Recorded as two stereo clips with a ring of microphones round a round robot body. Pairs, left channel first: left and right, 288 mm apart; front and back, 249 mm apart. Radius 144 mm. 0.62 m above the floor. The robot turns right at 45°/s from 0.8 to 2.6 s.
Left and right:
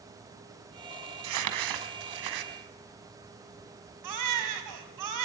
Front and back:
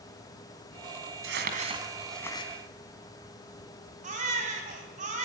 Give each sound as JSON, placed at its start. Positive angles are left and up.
{"t": 1.2, "sound": "crumpling", "azimuth_deg": -130, "distance_m": 2.5}
{"t": 4.0, "sound": "a baby crying", "azimuth_deg": -115, "distance_m": 3.5}